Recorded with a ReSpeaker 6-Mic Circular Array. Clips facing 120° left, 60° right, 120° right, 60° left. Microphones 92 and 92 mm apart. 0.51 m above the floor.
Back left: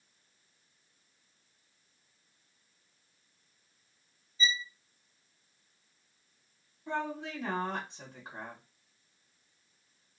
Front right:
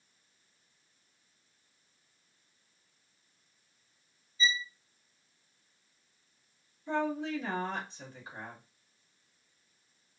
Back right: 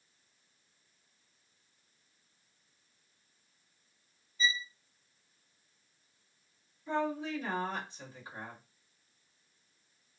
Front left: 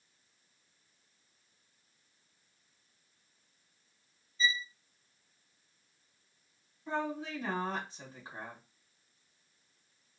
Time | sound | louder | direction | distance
4.4 | a violin | front right 2 dB, front left 1 dB | 170° left | 1.5 m
6.9 | a woman speaking | front right 4 dB, back right 2 dB | 115° left | 2 m